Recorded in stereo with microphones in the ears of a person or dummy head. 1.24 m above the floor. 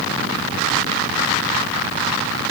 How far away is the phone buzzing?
No phone buzzing in this recording.